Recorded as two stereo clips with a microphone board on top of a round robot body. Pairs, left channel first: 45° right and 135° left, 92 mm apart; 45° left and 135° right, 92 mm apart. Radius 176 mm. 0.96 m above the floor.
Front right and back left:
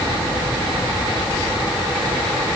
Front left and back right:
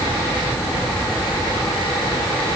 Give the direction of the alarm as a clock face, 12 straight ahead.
No alarm in this recording.